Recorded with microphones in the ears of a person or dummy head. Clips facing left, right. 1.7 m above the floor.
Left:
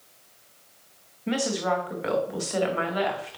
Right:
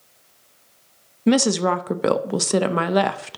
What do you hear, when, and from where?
1.3 s a woman speaking: 85° right, 0.6 m